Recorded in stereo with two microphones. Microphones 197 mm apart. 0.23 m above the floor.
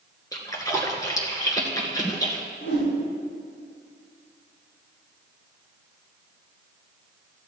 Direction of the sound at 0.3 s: 20° left (ahead or behind).